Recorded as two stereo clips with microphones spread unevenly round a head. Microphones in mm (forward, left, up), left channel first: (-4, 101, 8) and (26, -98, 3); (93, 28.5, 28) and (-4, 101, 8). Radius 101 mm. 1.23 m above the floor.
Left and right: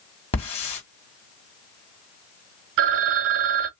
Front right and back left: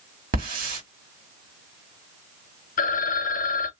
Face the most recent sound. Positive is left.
turn(degrees=-55)